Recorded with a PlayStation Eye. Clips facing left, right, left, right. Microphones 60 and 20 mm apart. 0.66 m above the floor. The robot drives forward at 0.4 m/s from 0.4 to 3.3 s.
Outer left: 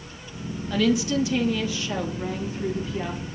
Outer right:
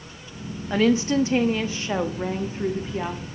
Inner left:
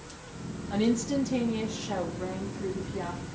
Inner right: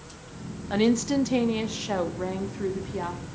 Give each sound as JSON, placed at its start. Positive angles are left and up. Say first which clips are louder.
{"t": 0.7, "sound": "a woman speaking", "louder": "outer right 2 dB, inner right 4 dB", "side_deg": -35, "distance_m": 0.9}